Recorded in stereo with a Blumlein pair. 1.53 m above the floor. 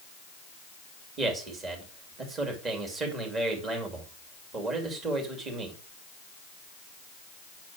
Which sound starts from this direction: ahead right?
A man speaking, at 1.2 s.